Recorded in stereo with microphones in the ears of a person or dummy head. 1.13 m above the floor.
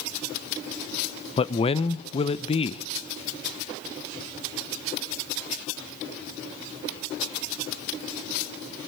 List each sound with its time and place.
1.4 s a man speaking: 30° left (ahead or behind), 0.5 m